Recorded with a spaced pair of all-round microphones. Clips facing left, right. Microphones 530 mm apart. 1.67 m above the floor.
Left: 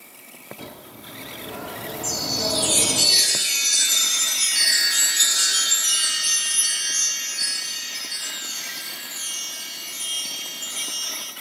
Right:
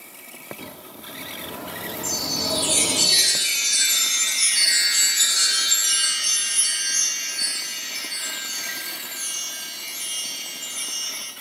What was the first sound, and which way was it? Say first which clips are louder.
A bird: even; 5° left (ahead or behind).